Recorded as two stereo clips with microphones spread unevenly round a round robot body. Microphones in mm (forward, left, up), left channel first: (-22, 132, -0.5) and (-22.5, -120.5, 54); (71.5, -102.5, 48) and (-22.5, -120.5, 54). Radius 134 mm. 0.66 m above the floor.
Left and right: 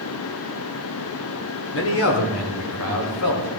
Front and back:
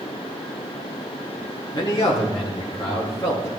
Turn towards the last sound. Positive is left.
turn(degrees=80)